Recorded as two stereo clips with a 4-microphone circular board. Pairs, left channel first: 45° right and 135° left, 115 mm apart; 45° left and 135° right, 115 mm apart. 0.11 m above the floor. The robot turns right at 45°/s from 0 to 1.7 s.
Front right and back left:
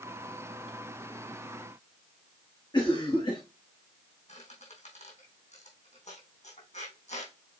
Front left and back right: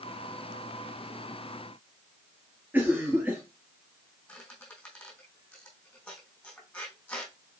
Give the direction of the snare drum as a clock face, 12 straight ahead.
No snare drum in this recording.